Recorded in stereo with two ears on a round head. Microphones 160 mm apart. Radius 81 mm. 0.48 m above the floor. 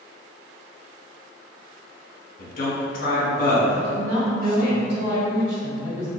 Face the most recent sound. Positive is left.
turn(degrees=-40)  # may be behind; listen again after turning